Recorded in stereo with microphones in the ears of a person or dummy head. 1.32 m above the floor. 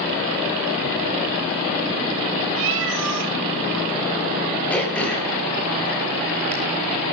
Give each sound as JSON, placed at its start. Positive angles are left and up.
{"t": 2.6, "sound": "a cat meowing", "side_deg": -65, "distance_m": 3.5}
{"t": 4.7, "sound": "throat clearing", "side_deg": 5, "distance_m": 4.5}